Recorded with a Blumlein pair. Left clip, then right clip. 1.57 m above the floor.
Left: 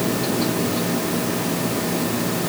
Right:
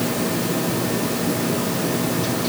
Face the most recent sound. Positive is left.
No sound to turn to.